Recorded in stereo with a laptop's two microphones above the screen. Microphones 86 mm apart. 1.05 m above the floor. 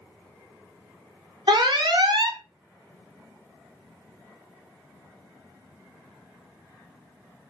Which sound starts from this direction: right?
An alarm, at 1.5 s.